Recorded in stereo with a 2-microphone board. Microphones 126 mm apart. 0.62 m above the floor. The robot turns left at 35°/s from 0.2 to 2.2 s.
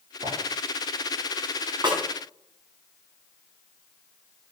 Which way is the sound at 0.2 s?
85° right.